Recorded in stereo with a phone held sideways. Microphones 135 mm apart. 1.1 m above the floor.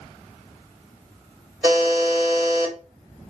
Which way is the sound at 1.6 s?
15° right (ahead or behind).